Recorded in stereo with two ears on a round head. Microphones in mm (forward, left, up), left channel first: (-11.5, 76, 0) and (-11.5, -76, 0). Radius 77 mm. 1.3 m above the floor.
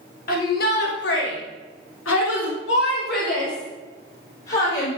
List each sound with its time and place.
0.3 s a shout: 50° left (ahead or behind), 4 m; by 4.9 s 40° left (ahead or behind), 5 m